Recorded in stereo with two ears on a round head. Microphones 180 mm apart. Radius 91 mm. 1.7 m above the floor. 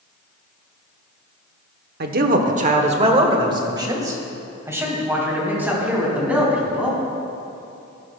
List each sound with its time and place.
2.0 s a man speaking: 50° right (ahead or behind), 0.9 m; by 7.0 s 5° right (ahead or behind), 3.5 m